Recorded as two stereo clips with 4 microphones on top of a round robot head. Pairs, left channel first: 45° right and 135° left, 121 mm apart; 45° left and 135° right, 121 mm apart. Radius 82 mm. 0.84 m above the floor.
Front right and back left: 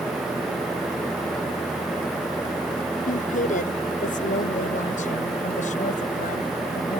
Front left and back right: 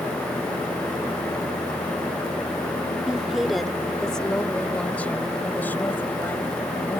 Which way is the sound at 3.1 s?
50° right.